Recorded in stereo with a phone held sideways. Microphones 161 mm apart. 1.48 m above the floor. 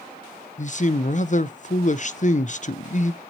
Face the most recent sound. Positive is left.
turn(degrees=50)  # may be behind; listen again after turning